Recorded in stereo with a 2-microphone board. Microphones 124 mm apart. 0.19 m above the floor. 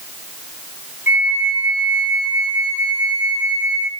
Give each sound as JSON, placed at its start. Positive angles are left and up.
{"t": 1.1, "sound": "a flute", "side_deg": -20, "distance_m": 1.6}